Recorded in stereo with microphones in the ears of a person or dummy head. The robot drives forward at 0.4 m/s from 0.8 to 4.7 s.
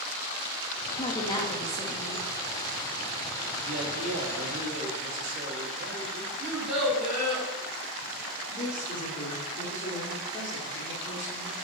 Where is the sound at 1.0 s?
25° left (ahead or behind), 0.5 m; by 2.2 s 15° left (ahead or behind), 1.0 m.